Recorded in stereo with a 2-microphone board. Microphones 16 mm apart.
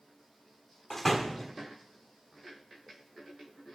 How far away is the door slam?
About 1.7 m.